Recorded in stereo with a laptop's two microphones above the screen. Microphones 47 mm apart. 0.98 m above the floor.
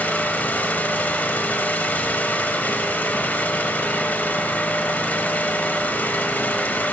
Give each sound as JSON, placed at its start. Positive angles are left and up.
{"t": 0.0, "sound": "an engine running", "side_deg": 40, "distance_m": 0.9}